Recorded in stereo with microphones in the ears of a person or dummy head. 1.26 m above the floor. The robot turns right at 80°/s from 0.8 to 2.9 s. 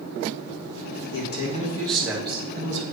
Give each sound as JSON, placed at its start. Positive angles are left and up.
{"t": 1.1, "sound": "a man speaking", "azimuth_deg": 110, "distance_m": 1.2}